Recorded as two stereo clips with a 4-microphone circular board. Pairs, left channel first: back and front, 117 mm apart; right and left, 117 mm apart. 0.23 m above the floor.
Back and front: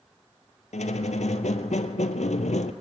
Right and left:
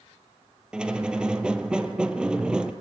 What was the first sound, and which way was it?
A squeak, 170° left.